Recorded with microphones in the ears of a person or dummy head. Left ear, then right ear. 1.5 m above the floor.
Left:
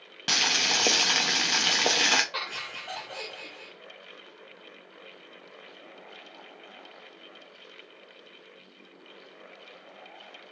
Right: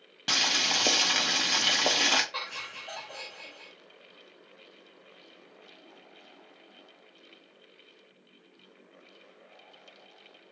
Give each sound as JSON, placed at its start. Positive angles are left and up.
{"t": 0.3, "sound": "boiling", "side_deg": 5, "distance_m": 0.5}
{"t": 2.3, "sound": "laughter", "side_deg": 25, "distance_m": 1.5}